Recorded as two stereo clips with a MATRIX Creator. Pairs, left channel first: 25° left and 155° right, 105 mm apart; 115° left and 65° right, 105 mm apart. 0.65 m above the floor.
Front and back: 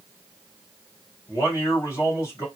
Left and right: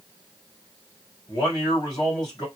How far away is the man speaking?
About 1.9 m.